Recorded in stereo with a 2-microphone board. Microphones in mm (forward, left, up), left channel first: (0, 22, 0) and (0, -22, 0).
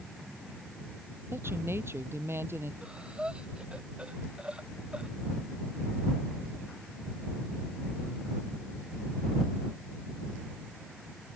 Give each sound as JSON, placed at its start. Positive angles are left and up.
{"t": 1.3, "sound": "a woman speaking", "side_deg": -70}
{"t": 2.8, "sound": "breathing", "side_deg": -25}